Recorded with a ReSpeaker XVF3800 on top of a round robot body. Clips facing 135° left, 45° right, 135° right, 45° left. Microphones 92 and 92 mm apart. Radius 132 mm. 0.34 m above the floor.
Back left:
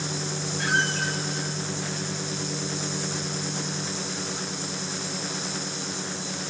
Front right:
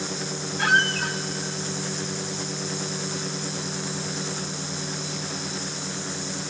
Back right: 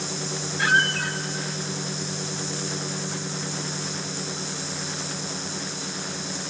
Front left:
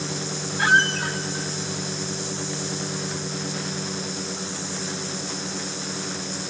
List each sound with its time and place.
0.6 s a squeak: 15° right, 0.8 m